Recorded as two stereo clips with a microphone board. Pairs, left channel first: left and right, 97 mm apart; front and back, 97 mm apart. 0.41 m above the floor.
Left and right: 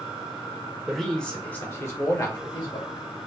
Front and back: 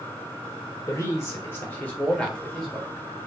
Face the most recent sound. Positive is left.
turn(degrees=95)